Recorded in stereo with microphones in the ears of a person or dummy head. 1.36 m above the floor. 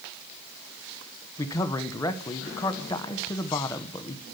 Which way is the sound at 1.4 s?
20° left (ahead or behind).